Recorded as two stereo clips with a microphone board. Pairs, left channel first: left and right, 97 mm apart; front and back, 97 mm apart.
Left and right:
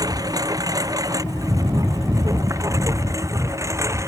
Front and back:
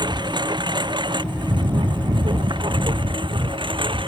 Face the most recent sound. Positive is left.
turn(degrees=-150)